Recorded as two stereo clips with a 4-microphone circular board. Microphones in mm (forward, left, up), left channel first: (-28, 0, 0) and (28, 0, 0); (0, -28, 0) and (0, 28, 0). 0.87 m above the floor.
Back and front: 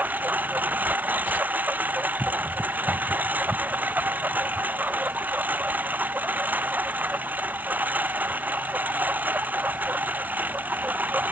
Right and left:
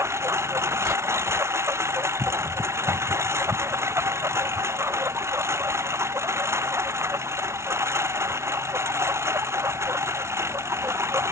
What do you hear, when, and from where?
0.0 s a lawn mower: 55° left